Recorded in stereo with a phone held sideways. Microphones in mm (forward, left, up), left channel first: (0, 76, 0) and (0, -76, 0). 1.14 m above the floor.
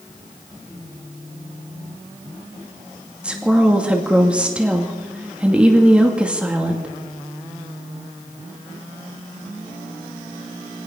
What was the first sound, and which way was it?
A woman speaking, 10° right (ahead or behind).